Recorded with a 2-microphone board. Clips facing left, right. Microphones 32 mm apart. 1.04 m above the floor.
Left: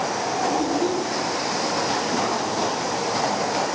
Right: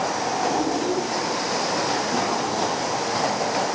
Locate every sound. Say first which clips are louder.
0.5 s a child speaking: left 1 dB; 25° left (ahead or behind), 8.5 m